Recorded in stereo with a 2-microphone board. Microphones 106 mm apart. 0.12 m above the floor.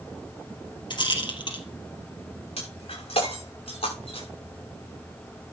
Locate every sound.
0.9 s a rattle: 45° left (ahead or behind), 3 m
2.6 s breaking glass: 70° left (ahead or behind), 8 m